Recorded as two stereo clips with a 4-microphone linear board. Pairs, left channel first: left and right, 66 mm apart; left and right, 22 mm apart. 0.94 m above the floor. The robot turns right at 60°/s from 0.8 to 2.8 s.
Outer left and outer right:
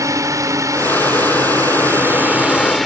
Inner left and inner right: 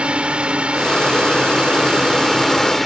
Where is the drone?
120° right; by 2.9 s straight ahead.